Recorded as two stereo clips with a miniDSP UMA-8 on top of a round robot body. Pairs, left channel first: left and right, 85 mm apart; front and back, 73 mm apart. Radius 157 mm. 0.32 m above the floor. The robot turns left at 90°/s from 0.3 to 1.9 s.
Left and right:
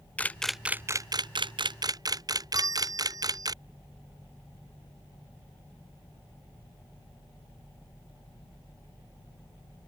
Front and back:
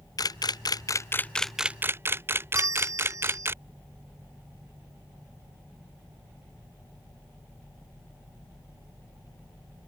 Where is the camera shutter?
20° left; by 3.5 s 125° right.